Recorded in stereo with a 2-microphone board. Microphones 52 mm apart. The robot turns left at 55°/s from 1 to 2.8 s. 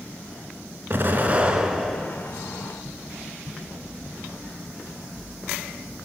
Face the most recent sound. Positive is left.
turn(degrees=130)